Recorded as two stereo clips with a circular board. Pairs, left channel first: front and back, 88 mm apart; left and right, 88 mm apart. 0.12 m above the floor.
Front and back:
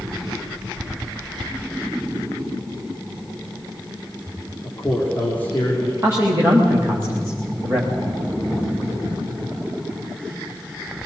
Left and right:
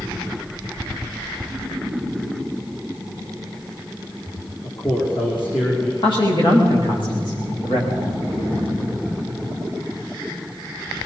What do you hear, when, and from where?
4.6 s a man speaking: 70° left, 5.5 m
6.0 s a man speaking: 115° left, 9 m